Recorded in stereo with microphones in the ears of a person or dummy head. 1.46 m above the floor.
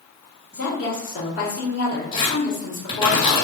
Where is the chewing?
I don't hear chewing.